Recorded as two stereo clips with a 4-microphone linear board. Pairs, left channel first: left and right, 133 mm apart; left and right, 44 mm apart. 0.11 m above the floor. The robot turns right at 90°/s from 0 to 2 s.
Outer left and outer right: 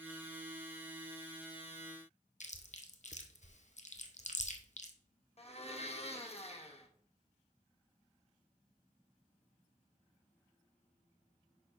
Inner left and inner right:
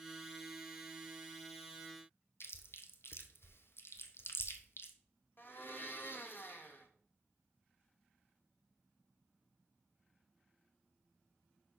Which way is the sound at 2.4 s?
60° left (ahead or behind).